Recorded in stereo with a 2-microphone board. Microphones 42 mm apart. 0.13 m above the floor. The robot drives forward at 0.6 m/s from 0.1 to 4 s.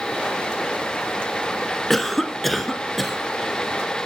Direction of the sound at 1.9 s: 5° left (ahead or behind).